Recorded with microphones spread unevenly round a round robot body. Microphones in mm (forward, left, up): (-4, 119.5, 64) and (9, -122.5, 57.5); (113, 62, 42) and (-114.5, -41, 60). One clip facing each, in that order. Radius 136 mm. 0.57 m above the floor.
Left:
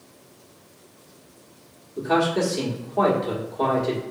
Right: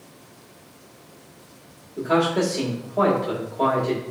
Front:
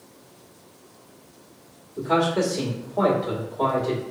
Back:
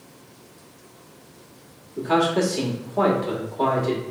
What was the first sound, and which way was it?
A man speaking, 175° left.